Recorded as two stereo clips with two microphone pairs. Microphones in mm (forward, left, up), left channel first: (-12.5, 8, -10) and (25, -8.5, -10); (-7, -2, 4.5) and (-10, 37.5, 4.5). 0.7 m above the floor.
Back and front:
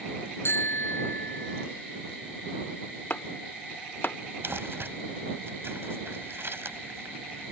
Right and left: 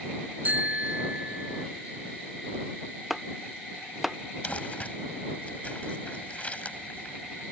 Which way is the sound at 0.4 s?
145° left.